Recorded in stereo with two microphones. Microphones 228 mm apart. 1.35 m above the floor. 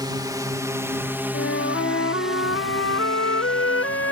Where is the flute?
65° left (ahead or behind).